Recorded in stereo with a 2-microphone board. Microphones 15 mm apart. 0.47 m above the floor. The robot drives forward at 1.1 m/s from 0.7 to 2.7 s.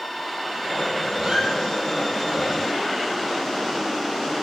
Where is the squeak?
55° right (ahead or behind), 8 m.